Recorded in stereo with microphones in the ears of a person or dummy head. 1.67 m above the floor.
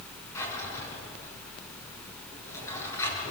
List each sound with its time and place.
0.3 s a drawer: 15° left (ahead or behind), 6.5 m